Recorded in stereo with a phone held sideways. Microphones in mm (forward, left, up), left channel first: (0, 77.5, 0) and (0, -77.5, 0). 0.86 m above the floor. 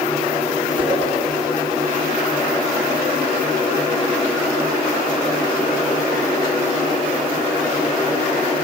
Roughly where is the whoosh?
Centre.